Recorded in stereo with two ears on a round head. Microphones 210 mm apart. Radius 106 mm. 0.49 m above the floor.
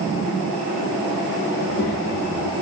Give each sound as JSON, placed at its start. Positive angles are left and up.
{"t": 1.6, "sound": "a child speaking", "side_deg": 55, "distance_m": 4.5}